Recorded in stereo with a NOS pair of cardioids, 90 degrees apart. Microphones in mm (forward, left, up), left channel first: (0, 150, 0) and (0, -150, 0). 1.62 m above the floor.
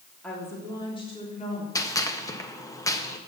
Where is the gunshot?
10° left, 1.5 m.